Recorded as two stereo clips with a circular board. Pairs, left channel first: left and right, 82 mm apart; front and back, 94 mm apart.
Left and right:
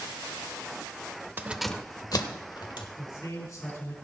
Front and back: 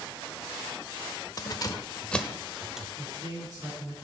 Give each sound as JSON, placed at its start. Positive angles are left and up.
{"t": 1.4, "sound": "keys jangling", "azimuth_deg": -35, "distance_m": 0.7}
{"t": 3.0, "sound": "a man speaking", "azimuth_deg": 135, "distance_m": 5.0}